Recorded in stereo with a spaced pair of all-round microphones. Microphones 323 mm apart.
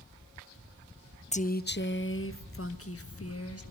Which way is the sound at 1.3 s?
20° left (ahead or behind).